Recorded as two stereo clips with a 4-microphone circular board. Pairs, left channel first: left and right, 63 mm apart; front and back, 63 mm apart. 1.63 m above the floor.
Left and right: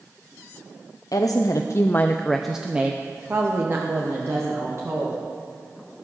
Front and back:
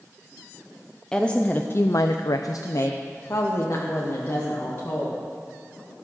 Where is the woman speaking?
80° left, 0.7 m; by 5.2 s 50° right, 2 m.